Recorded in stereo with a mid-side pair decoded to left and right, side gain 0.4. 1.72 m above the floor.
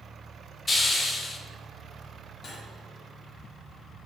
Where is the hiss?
40° left, 1.6 m.